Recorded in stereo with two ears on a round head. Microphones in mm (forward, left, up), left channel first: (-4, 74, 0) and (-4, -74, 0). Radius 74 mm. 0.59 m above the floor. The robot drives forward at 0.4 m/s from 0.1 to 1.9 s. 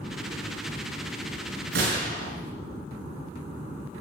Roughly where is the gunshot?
Right.